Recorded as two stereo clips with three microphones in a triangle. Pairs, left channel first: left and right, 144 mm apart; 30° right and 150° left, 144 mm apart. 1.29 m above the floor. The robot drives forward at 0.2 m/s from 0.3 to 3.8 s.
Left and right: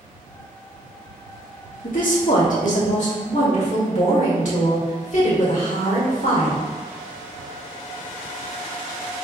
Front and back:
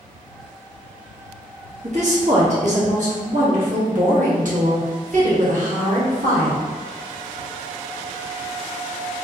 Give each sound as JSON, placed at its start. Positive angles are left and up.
{"t": 1.8, "sound": "a woman speaking", "azimuth_deg": 110, "distance_m": 1.5}